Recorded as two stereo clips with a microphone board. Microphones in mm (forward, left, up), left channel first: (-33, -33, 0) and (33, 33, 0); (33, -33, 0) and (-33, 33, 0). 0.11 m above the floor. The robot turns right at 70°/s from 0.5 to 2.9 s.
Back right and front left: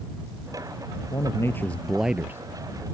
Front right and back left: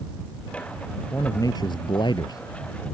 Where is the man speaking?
105° right; by 2.4 s 10° right.